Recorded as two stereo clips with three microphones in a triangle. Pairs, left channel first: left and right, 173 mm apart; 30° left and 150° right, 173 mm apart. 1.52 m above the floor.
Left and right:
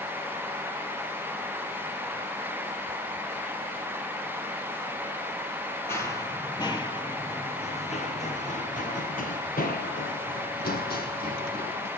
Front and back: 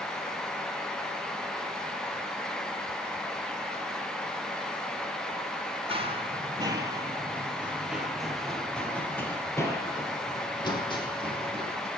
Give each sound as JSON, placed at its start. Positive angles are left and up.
{"t": 5.9, "sound": "running footsteps", "azimuth_deg": 160, "distance_m": 2.5}